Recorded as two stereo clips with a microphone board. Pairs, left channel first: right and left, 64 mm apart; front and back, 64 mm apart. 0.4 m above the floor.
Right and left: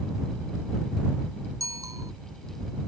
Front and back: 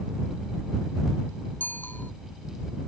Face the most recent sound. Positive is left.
turn(degrees=60)